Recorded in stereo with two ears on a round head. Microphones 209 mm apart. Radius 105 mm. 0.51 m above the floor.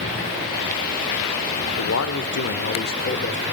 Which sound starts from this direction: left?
A man speaking, at 1.7 s.